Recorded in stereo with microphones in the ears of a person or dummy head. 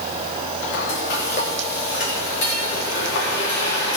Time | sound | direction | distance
0.7 | frying | 65° left (ahead or behind) | 3 m